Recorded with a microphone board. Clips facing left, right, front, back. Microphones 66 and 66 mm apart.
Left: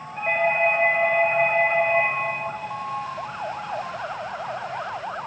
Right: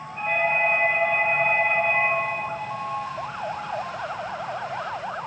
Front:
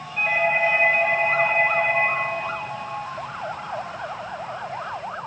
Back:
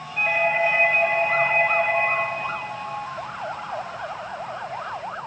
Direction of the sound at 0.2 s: 90° left.